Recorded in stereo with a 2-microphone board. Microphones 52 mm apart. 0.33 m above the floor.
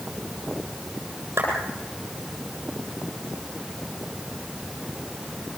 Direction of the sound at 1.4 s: 50° right (ahead or behind).